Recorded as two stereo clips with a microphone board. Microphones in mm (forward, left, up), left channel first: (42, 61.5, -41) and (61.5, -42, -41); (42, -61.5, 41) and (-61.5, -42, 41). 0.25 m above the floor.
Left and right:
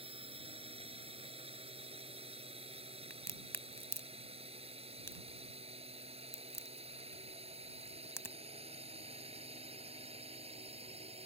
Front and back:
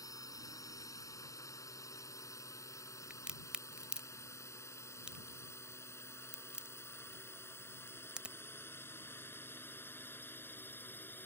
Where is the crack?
100° left.